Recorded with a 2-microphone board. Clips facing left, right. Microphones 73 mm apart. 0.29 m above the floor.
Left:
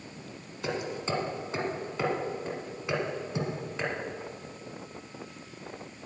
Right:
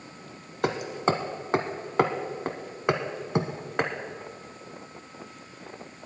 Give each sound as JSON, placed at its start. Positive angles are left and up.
{"t": 0.6, "sound": "hammering", "side_deg": -70, "distance_m": 1.0}